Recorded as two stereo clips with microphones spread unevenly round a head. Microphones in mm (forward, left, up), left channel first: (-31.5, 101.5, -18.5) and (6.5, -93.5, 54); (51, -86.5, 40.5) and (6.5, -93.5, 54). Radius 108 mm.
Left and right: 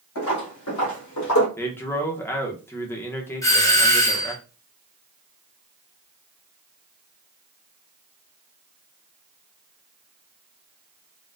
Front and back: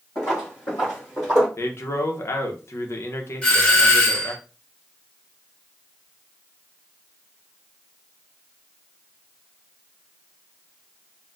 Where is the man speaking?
25° left, 0.7 m.